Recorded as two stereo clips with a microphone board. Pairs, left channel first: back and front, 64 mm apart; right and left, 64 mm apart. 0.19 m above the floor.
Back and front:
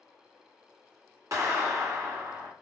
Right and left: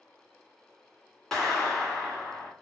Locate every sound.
1.3 s a clap: 10° right, 1.8 m